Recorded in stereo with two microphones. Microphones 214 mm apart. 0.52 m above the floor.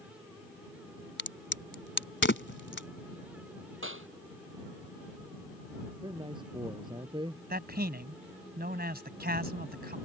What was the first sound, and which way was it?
A crack, 60° left (ahead or behind).